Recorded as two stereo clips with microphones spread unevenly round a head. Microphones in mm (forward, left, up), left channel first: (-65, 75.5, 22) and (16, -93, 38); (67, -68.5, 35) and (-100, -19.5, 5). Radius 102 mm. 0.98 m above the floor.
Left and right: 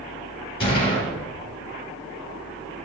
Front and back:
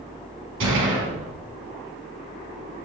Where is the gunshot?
160° left, 4.5 m.